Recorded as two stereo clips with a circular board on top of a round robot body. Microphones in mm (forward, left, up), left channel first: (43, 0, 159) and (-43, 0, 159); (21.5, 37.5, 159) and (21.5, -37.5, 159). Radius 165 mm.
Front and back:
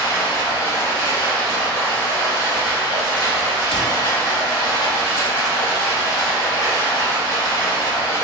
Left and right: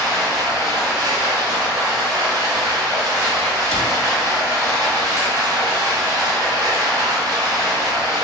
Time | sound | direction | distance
0.0 | running water | 55° right | 0.8 m
3.7 | a cupboard door | 10° left | 0.5 m